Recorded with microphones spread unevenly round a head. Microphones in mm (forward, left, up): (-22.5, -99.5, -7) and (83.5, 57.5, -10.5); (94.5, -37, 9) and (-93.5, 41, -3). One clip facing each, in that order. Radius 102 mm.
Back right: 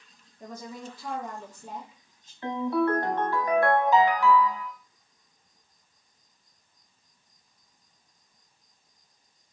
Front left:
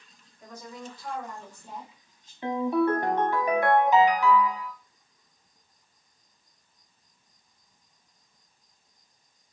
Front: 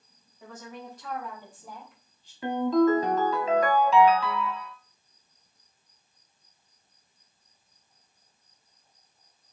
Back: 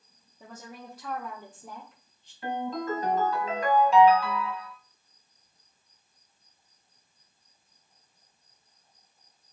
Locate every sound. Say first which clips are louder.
0.4 s a woman speaking: back right 2 dB, front 2 dB; 165° right, 0.7 m; by 2.3 s 100° right, 1.6 m
2.4 s a ringtone: front left 1 dB, front 10 dB; 15° right, 0.8 m